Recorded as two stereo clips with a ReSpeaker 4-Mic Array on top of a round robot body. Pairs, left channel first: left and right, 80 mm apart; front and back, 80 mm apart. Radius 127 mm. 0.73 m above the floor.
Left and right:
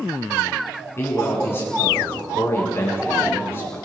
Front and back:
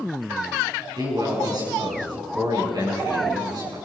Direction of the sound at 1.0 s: 150° left.